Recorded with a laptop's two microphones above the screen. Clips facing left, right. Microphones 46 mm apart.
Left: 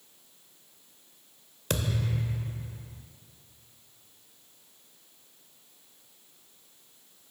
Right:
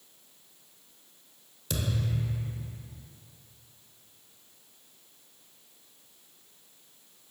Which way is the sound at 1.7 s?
55° left (ahead or behind).